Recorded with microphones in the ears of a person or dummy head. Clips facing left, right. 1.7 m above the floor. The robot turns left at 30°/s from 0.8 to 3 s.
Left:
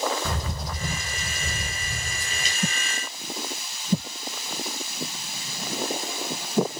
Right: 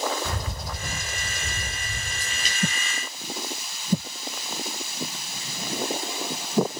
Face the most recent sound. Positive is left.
turn(degrees=35)